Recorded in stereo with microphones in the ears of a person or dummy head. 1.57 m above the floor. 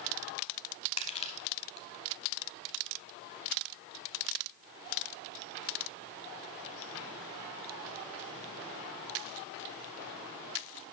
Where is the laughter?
No laughter in this recording.